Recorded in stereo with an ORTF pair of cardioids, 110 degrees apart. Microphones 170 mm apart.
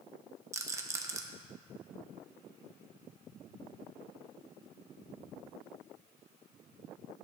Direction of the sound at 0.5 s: 15° right.